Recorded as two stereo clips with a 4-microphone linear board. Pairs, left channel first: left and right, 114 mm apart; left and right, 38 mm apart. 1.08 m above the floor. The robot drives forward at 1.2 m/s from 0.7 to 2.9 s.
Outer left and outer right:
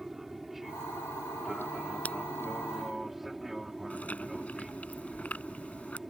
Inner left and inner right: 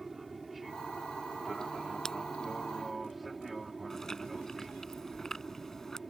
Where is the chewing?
10° left (ahead or behind).